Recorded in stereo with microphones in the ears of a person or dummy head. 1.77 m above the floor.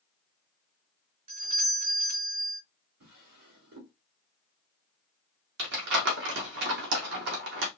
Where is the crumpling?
65° right (ahead or behind), 1.6 m.